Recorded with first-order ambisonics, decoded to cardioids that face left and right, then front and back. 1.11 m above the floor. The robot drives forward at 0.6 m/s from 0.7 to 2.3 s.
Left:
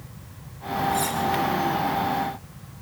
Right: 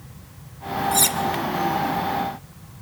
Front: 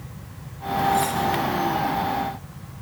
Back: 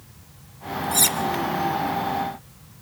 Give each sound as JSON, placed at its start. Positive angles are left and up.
{"t": 0.9, "sound": "cutlery clinking", "azimuth_deg": -135, "distance_m": 0.7}